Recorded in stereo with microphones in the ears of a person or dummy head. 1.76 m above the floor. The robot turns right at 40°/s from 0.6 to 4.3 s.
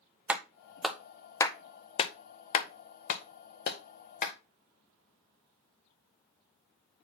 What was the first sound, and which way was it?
A clap, centre (ahead or behind).